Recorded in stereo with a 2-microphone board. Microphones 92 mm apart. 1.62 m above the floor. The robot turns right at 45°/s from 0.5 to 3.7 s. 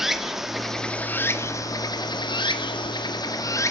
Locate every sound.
0.0 s running water: 5° right, 1.6 m; by 3.7 s 140° left, 1.6 m